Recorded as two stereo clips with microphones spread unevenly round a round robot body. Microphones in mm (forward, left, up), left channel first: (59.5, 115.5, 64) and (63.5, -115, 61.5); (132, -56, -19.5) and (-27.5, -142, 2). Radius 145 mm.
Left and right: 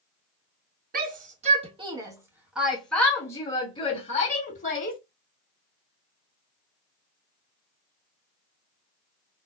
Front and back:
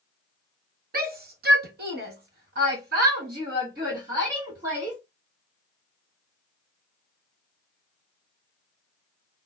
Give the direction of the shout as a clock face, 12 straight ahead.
4 o'clock.